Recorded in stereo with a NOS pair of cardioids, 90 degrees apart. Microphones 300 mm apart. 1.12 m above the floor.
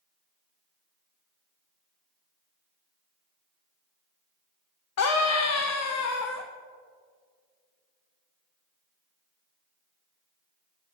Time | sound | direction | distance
5.0 | a scream | 55° left | 1.1 m